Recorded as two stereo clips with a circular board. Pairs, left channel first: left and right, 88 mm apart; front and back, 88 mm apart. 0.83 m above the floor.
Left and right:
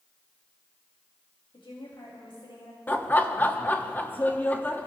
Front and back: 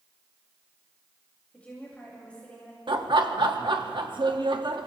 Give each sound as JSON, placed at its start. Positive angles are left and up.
{"t": 1.5, "sound": "a woman speaking", "azimuth_deg": 75, "distance_m": 4.0}
{"t": 2.9, "sound": "laughter", "azimuth_deg": 160, "distance_m": 1.1}